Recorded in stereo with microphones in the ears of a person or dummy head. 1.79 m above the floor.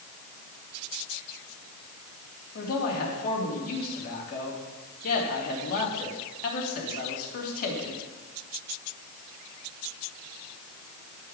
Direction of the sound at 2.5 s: 50° left (ahead or behind).